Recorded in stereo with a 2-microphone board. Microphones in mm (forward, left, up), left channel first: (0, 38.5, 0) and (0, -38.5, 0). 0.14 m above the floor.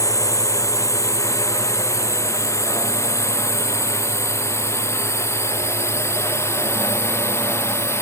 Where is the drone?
45° left (ahead or behind); by 8.0 s 35° left (ahead or behind).